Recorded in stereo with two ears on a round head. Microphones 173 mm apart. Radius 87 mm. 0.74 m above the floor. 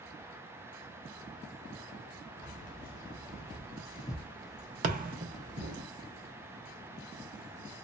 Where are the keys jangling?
50° left (ahead or behind), 1.3 m; by 5.8 s 55° right (ahead or behind), 0.8 m.